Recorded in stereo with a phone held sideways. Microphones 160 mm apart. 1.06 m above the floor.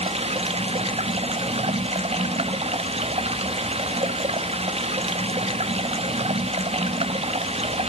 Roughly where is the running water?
Right.